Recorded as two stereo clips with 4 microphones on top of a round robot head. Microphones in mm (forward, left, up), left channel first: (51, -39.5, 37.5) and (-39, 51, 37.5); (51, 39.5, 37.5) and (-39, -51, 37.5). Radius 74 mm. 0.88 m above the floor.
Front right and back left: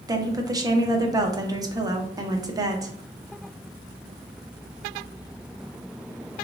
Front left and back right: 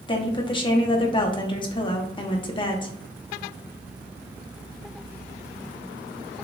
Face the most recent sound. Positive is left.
turn(degrees=80)